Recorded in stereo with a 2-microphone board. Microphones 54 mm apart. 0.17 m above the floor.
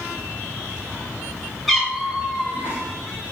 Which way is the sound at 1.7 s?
Centre (ahead or behind).